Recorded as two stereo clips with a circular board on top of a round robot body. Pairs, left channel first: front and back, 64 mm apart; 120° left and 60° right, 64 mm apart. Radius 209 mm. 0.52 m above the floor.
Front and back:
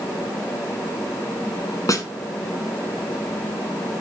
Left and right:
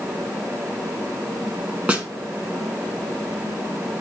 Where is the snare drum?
Straight ahead, 1.5 m.